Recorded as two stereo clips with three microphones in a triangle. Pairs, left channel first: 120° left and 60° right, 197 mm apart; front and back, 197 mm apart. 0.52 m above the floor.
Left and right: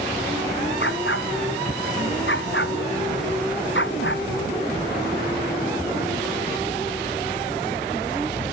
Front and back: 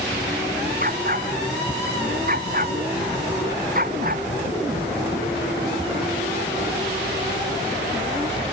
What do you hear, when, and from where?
0.8 s a dog barking: 140° left